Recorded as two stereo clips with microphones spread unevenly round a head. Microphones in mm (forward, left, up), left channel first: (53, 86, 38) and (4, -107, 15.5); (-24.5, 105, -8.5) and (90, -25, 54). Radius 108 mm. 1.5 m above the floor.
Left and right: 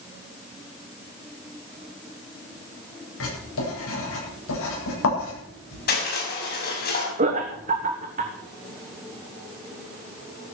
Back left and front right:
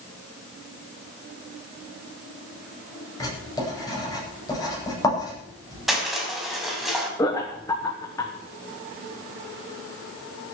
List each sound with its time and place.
3.2 s writing: 60° left, 9.5 m
5.9 s crushing: 35° left, 6 m
7.2 s laughter: 160° right, 1.4 m